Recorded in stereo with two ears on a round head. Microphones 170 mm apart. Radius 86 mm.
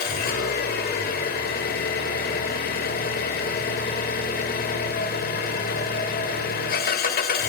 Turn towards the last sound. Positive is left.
turn(degrees=55)  # may be behind; listen again after turning